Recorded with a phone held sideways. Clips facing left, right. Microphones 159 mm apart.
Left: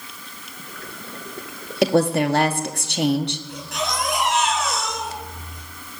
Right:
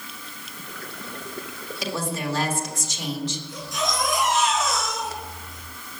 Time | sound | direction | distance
1.8 | a woman speaking | 65° left (ahead or behind) | 1.7 m
3.5 | a baby crying | 65° left (ahead or behind) | 8.5 m